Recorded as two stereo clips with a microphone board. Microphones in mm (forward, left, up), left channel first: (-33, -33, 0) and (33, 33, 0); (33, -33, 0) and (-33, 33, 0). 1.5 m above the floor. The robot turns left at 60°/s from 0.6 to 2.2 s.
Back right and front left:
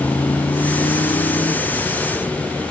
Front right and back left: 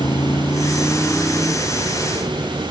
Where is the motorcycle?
70° right; by 2.7 s 145° left.